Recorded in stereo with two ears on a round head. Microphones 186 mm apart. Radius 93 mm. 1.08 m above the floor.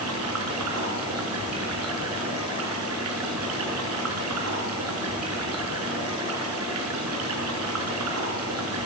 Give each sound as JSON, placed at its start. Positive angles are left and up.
{"t": 0.0, "sound": "running water", "side_deg": -85, "distance_m": 6.0}